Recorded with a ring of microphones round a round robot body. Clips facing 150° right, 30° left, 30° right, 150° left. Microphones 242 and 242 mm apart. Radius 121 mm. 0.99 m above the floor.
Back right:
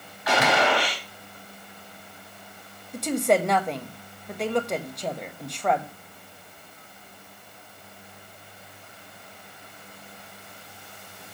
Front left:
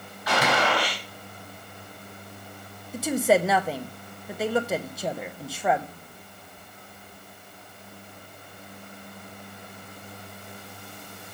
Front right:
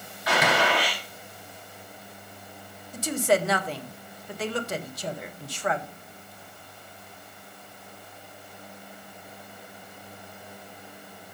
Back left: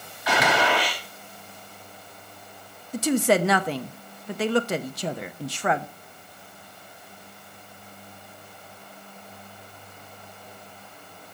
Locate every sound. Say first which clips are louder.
0.3 s a gunshot: back right 2 dB, back left 1 dB; 175° left, 4 m
2.9 s a woman speaking: front left 1 dB, back left 4 dB; 115° left, 0.8 m